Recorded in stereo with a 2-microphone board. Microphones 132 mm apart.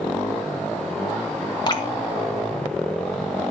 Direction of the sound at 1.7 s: 35° left (ahead or behind).